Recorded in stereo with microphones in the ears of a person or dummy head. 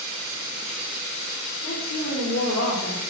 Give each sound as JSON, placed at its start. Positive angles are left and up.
{"t": 1.6, "sound": "a woman speaking", "side_deg": 45, "distance_m": 4.5}